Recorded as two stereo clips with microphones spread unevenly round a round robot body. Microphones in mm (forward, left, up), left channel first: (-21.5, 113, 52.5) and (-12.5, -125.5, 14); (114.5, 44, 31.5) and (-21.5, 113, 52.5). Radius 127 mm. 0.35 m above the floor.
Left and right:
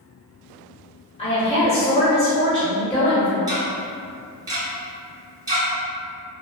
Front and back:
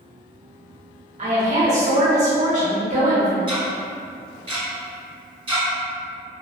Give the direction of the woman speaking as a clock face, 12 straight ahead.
7 o'clock.